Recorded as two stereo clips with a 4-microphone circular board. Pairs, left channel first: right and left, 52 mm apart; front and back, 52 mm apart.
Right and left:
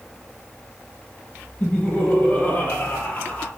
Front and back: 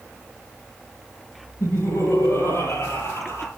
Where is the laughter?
30° right, 10 m.